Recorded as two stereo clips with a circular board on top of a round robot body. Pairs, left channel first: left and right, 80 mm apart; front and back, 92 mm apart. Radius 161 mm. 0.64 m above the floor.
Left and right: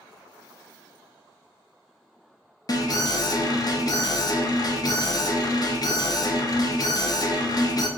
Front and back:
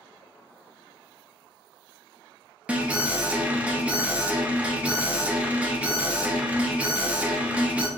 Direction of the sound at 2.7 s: 105° left.